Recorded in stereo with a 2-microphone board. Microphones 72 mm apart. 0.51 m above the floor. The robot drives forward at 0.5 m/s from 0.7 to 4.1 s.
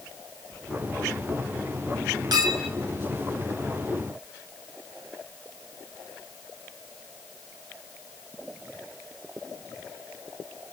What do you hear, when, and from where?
2.3 s a clink: 75° right (ahead or behind), 2.5 m